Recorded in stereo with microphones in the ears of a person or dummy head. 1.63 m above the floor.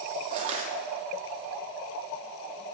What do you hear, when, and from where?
0.3 s crushing: 35° right (ahead or behind), 1.9 m